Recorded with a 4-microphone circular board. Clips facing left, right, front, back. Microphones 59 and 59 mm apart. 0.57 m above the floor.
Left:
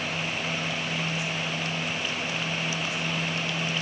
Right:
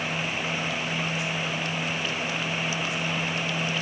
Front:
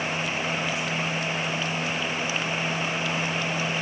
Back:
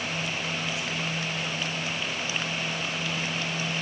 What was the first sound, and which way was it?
Only background noise.